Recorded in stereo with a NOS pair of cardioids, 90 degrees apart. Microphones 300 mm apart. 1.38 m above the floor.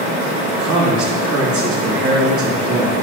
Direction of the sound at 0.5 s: 60° right.